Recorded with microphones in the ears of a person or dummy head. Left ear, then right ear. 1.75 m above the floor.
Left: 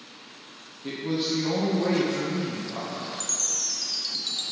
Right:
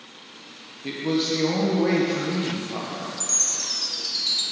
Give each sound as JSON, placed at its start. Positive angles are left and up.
{"t": 0.8, "sound": "a man speaking", "side_deg": -15, "distance_m": 1.1}
{"t": 3.2, "sound": "a chime", "side_deg": 10, "distance_m": 0.6}